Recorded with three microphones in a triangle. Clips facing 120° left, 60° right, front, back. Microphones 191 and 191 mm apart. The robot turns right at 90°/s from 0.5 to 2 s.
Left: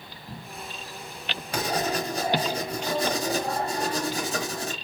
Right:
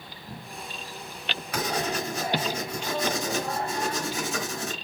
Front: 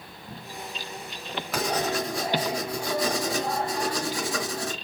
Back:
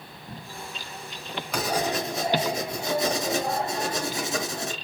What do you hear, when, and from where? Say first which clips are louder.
1.5 s writing: left 2 dB, even; 85° left, 1.2 m; by 4.8 s 130° left, 1.2 m